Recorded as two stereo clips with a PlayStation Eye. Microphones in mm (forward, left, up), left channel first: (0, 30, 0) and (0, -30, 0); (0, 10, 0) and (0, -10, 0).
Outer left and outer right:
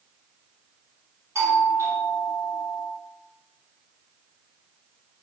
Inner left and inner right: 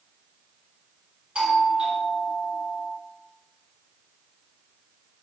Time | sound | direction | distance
1.4 | a doorbell | 55° right (ahead or behind) | 6.5 m